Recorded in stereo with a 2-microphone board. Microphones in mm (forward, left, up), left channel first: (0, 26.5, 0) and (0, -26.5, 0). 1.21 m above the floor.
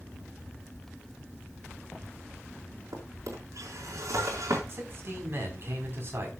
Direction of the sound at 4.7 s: 45° right (ahead or behind).